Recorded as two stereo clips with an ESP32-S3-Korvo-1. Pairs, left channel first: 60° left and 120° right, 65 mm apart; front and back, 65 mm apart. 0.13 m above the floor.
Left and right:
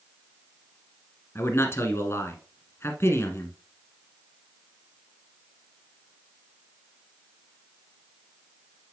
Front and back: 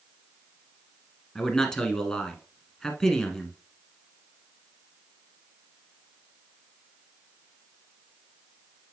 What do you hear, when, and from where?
1.4 s a man speaking: 65° left, 1.4 m